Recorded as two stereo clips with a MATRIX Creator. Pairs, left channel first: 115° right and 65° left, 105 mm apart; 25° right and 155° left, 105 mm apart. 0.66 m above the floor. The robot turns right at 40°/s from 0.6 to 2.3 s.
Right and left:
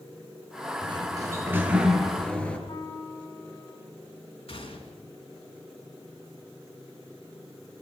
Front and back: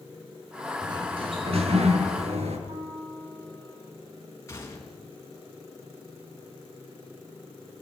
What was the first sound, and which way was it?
A sliding door, 110° left.